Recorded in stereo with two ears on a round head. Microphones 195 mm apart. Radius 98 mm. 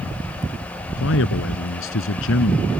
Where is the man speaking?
70° left (ahead or behind).